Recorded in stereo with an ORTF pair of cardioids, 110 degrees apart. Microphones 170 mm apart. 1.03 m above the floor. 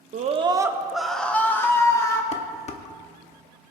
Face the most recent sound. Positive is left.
turn(degrees=40)